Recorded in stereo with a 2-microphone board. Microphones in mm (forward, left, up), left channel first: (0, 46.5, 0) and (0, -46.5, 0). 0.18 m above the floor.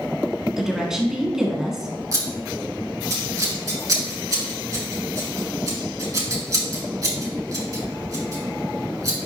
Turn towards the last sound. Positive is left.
turn(degrees=-40)  # may be behind; listen again after turning